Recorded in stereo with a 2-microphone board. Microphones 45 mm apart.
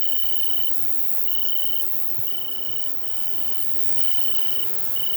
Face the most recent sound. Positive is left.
turn(degrees=60)  # may be behind; listen again after turning